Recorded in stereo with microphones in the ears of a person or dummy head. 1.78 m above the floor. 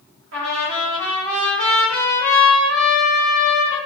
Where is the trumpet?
65° right (ahead or behind), 1.3 m.